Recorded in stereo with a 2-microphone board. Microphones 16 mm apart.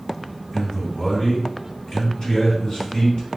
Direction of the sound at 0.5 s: 55° left (ahead or behind).